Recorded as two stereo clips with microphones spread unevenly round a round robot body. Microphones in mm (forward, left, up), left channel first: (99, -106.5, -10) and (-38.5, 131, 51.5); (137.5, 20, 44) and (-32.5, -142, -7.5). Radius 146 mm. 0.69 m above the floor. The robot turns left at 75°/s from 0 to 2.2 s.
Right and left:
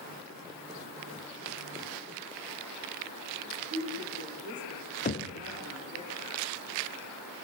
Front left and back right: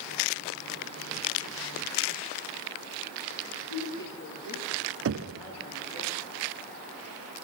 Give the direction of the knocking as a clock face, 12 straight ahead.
4 o'clock.